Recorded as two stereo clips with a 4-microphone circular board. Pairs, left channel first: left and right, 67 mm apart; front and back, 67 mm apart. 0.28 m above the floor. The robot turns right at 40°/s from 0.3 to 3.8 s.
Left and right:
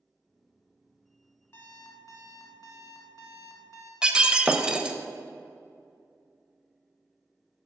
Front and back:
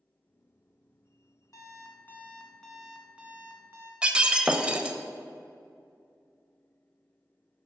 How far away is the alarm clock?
About 1.3 m.